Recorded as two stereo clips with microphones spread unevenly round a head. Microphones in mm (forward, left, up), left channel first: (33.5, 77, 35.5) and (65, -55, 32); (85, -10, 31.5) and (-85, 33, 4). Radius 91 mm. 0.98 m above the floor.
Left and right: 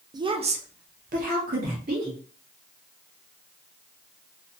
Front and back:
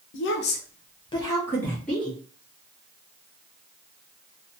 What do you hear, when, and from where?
0.1 s a woman speaking: 20° right, 0.6 m; by 2.2 s 105° right, 1.3 m